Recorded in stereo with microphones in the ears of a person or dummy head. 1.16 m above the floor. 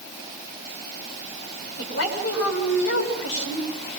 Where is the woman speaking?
70° left (ahead or behind), 8 m.